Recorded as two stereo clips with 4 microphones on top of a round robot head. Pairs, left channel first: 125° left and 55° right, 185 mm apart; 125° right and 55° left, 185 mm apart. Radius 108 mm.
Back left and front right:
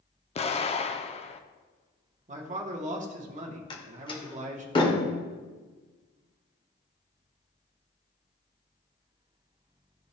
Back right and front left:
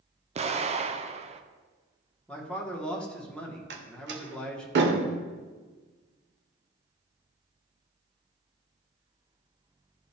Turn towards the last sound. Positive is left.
turn(degrees=60)